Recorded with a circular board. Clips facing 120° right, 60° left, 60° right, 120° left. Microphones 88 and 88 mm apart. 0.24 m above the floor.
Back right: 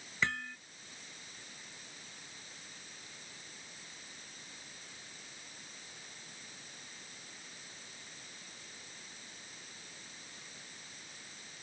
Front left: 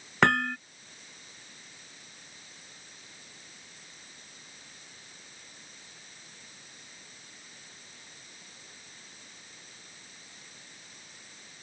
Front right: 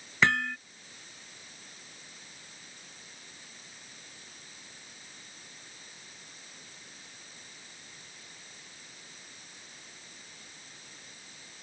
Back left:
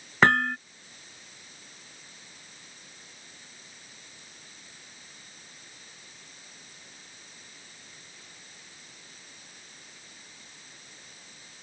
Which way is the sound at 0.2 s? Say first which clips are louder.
Front left 13 dB, back left 5 dB; 80° left.